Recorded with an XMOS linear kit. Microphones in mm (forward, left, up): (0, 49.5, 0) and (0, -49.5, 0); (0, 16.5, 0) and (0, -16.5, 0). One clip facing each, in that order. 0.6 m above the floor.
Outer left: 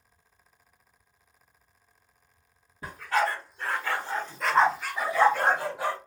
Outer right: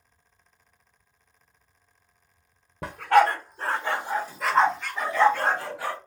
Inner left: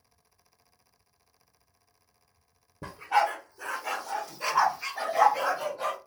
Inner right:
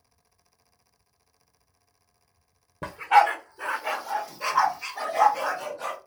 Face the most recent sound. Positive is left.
turn(degrees=20)  # may be behind; listen again after turning